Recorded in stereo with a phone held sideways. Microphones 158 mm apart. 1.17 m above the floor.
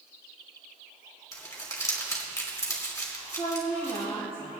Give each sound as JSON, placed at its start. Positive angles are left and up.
{"t": 1.3, "sound": "crumpling", "side_deg": 20, "distance_m": 2.5}
{"t": 3.4, "sound": "a woman speaking", "side_deg": 40, "distance_m": 2.5}